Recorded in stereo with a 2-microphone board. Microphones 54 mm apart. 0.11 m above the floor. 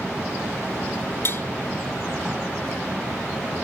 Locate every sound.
1.2 s tapping: 50° left (ahead or behind)